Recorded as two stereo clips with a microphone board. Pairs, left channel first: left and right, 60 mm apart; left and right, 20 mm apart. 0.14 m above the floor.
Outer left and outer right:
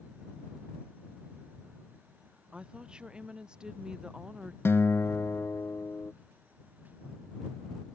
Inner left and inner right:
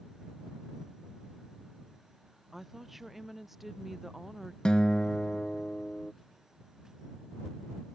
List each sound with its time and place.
2.5 s a woman speaking: 15° right (ahead or behind); by 4.5 s 10° right (ahead or behind)
4.7 s a guitar: 50° left (ahead or behind)